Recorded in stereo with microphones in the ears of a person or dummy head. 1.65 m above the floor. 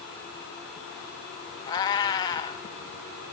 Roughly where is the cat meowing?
Left.